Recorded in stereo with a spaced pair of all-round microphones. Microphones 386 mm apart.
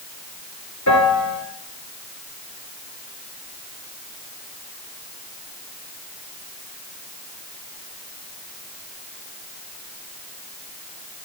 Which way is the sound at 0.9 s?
45° left (ahead or behind).